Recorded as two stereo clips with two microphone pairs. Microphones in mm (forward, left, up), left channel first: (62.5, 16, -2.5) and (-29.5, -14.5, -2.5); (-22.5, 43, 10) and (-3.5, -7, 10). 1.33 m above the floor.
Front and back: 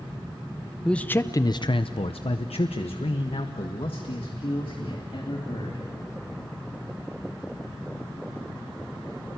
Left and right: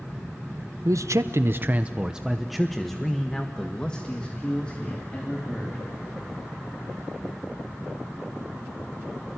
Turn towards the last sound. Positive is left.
turn(degrees=50)